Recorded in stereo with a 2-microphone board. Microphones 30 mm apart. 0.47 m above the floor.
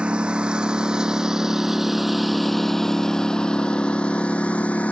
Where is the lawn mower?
40° right (ahead or behind); by 4.9 s 55° left (ahead or behind).